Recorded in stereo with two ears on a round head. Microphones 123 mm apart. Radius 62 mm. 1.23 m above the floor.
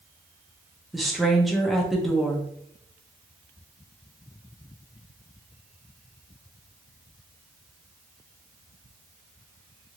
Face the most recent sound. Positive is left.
turn(degrees=0)  # may be behind; listen again after turning